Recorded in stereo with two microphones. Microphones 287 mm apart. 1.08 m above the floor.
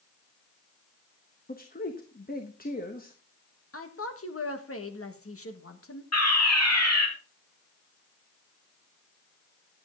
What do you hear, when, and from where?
1.5 s a man speaking: 35° left (ahead or behind), 1.1 m
3.7 s a woman speaking: 55° left (ahead or behind), 1.4 m
6.1 s a fire alarm: 65° left (ahead or behind), 2.5 m